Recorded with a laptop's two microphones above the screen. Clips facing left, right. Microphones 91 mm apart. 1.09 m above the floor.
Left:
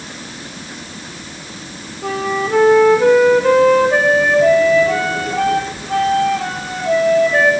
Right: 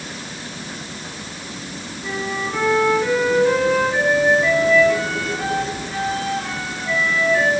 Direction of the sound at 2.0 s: 70° left (ahead or behind).